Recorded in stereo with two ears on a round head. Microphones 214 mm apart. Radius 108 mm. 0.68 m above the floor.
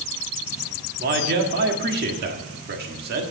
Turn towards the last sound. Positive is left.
turn(degrees=-45)  # may be behind; listen again after turning